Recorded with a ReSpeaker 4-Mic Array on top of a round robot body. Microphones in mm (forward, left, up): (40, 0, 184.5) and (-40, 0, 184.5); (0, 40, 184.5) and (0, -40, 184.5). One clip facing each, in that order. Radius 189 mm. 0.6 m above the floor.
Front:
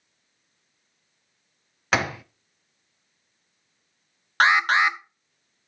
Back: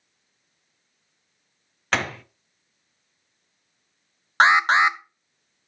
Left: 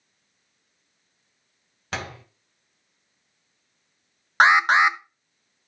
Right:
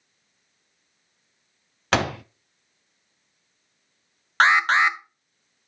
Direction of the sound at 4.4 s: 145° left.